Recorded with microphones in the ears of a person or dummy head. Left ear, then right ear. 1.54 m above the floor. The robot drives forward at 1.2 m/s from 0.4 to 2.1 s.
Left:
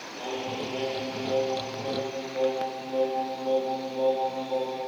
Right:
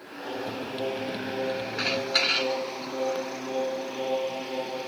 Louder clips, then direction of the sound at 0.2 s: Left 1 dB; 45° left (ahead or behind).